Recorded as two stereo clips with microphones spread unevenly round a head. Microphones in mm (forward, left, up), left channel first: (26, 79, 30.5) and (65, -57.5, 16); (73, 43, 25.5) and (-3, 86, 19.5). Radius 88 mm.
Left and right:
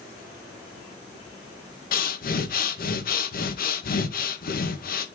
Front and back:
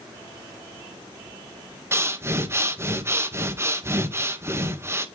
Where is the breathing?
95° left, 1.7 m.